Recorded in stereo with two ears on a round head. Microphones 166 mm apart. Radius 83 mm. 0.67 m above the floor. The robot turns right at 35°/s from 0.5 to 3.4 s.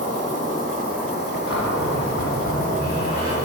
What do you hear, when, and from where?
0.0 s an insect: 50° left, 1.8 m; by 3.5 s 150° left, 1.8 m
1.5 s a cupboard door: 80° left, 3 m; by 3.4 s 145° left, 3 m